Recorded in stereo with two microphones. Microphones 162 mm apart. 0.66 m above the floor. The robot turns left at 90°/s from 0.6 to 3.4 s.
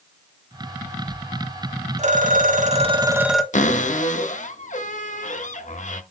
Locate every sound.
2.0 s a phone ringing: 55° right, 1.1 m; by 3.4 s 175° left, 1.1 m
3.5 s a cupboard door: 55° left (ahead or behind), 0.8 m